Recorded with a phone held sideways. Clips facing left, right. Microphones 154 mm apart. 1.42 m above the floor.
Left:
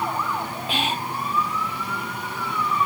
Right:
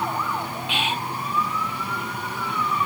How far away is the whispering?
About 1.0 m.